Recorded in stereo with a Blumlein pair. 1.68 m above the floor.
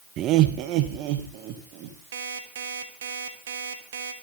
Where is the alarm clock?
60° right, 3.5 m.